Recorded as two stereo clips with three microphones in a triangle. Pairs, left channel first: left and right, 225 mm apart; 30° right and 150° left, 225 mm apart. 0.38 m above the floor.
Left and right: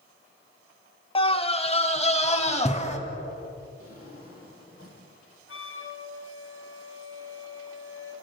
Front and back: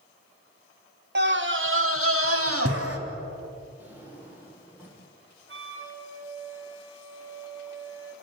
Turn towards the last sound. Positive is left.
turn(degrees=120)